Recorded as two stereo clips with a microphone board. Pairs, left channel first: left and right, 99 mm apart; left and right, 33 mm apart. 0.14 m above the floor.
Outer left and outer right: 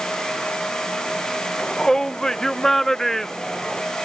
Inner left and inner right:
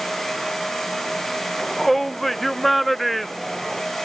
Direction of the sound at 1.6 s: 5° left (ahead or behind).